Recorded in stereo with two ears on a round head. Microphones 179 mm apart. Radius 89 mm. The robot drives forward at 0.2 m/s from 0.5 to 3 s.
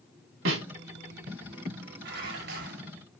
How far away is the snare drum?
About 3.5 m.